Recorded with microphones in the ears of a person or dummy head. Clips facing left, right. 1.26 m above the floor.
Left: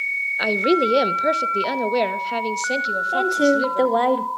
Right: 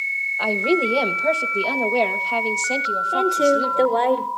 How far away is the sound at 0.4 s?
About 1.0 m.